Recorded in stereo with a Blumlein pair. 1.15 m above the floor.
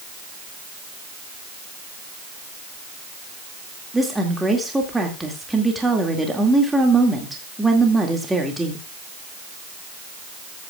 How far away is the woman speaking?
About 2 m.